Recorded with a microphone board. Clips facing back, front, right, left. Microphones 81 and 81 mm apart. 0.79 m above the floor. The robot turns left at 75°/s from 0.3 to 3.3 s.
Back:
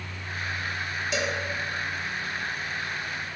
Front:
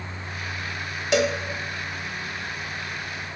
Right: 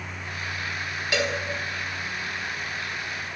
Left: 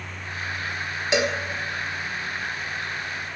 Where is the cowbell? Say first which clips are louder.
Front 9 dB, left 3 dB; 20° left, 0.9 m; by 1.4 s 5° left, 0.9 m.